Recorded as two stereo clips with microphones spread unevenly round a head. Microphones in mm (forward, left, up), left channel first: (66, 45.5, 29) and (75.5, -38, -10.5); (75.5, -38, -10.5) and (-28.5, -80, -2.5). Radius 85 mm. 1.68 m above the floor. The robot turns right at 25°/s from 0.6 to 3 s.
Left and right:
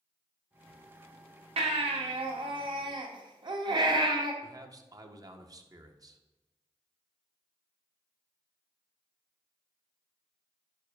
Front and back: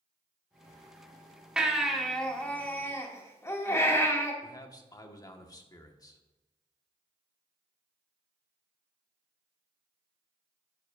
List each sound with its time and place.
1.6 s a baby crying: 80° right, 2 m; by 4.3 s 45° right, 2 m
4.4 s a man speaking: 35° right, 1.6 m